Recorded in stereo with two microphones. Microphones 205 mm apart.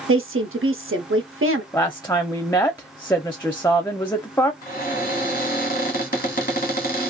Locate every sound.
0.1 s a woman speaking: 80° right, 0.9 m
1.7 s a woman speaking: 10° left (ahead or behind), 0.6 m
4.6 s a cupboard door: 40° left (ahead or behind), 1.5 m